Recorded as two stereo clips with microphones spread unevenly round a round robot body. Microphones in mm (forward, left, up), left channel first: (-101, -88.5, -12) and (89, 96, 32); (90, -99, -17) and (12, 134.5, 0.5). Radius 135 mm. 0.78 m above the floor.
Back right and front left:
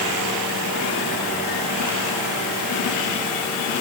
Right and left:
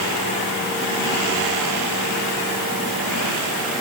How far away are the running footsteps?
No running footsteps in this recording.